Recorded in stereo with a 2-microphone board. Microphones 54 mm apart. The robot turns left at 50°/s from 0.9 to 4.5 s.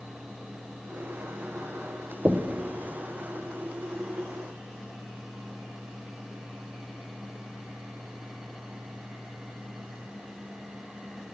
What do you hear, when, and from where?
2.2 s knocking: 15° right (ahead or behind), 0.5 m; by 2.6 s 5° right (ahead or behind), 0.5 m